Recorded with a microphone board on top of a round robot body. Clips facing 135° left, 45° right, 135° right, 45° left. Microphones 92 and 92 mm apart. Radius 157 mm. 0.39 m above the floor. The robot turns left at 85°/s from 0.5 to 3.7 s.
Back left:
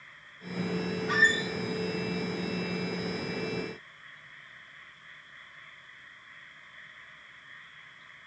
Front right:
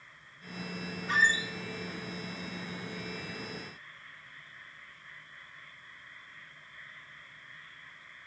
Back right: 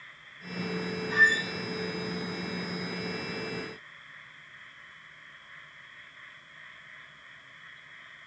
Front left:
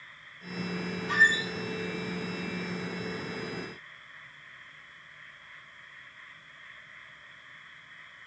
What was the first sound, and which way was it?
A squeak, 50° left.